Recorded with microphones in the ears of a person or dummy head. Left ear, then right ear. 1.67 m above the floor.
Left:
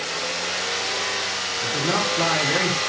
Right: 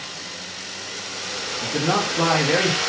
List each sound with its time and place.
1.6 s a man speaking: 45° right (ahead or behind), 3.5 m